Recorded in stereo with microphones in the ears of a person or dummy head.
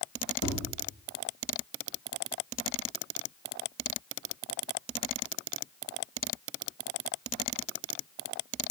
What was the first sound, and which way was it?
Tapping, 65° left (ahead or behind).